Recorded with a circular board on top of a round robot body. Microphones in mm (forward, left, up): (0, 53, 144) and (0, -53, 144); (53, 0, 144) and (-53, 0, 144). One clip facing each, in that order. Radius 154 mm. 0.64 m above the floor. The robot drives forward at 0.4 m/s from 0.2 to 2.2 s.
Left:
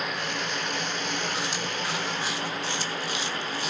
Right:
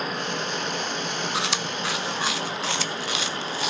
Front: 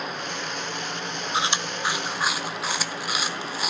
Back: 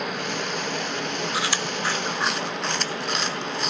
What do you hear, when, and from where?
0.0 s running water: 145° right, 3 m; by 3.7 s 155° right, 3.5 m
1.3 s chewing: 65° right, 1.1 m; by 3.7 s 85° right, 1.0 m